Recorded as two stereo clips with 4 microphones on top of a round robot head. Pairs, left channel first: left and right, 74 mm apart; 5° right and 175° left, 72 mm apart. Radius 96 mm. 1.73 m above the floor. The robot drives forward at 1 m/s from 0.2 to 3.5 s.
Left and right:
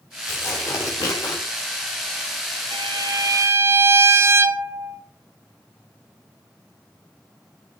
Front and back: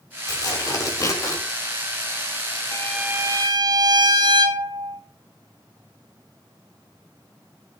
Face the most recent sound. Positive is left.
turn(degrees=-140)